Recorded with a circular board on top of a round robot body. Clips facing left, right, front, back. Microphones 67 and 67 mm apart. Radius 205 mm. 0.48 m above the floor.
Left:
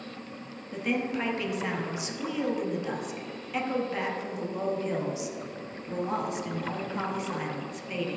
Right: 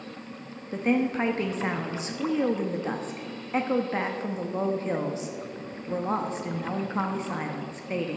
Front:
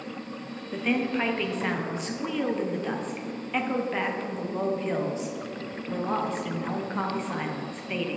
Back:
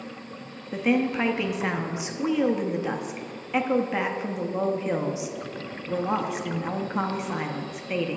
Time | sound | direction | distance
0.7 | a woman speaking | 110° right | 1.0 m